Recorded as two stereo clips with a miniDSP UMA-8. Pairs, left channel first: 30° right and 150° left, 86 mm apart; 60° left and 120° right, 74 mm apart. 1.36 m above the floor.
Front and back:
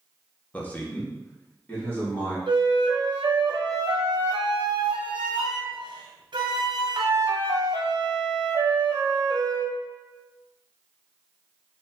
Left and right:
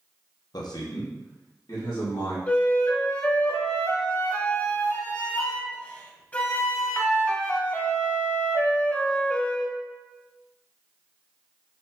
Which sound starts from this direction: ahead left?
A man speaking, at 0.5 s.